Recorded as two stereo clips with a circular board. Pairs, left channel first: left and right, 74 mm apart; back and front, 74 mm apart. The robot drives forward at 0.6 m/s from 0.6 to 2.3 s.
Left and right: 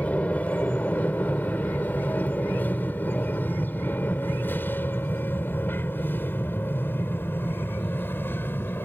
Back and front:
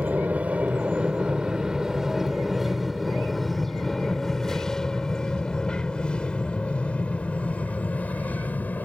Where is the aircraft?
45° left; by 8.8 s 130° left.